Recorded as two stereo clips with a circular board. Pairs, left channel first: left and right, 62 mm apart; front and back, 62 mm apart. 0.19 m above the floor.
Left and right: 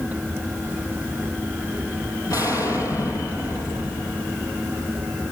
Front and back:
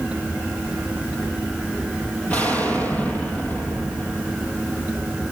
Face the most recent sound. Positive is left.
turn(degrees=65)